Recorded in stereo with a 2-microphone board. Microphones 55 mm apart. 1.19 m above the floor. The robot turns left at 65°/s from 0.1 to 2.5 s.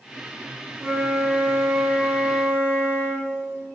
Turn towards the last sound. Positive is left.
turn(degrees=140)